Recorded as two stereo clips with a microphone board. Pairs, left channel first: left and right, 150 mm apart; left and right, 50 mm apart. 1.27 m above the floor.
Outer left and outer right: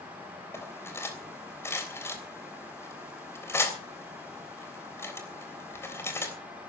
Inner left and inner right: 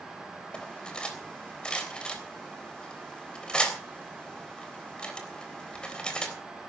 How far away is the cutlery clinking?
About 3.5 m.